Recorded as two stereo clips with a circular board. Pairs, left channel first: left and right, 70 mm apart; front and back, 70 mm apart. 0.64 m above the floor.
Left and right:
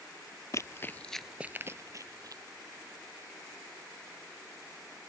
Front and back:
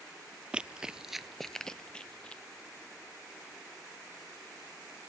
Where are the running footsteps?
110° left; by 2.4 s 75° right.